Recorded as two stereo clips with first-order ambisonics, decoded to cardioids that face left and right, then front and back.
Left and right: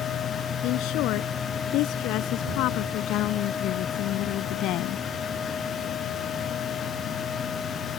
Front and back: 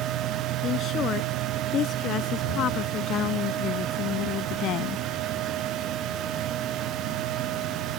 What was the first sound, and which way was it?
A woman speaking, 55° left.